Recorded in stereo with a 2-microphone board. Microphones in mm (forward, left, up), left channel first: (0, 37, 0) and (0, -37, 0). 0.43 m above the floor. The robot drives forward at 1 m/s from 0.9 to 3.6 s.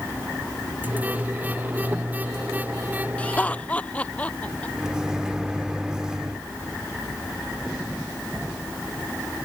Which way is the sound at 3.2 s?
20° left (ahead or behind).